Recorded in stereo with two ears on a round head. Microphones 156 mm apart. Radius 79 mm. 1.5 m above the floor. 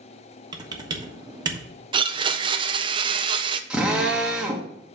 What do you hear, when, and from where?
0.5 s typing on a keyboard: 25° right (ahead or behind), 1.3 m
1.9 s a blender: 30° right (ahead or behind), 0.6 m
3.7 s a drill: 5° right (ahead or behind), 1.2 m